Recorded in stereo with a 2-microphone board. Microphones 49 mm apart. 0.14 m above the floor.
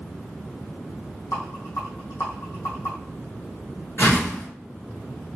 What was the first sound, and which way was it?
A rattle, 80° left.